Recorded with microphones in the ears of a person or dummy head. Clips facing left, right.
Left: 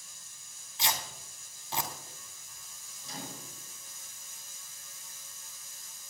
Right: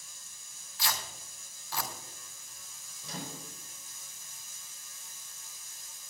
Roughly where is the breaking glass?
I don't hear breaking glass.